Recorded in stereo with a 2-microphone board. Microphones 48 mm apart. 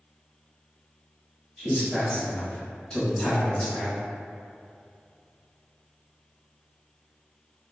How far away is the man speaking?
About 1.4 m.